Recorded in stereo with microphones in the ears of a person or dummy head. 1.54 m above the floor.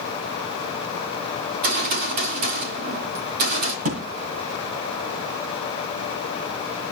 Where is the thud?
40° right (ahead or behind), 2.0 m.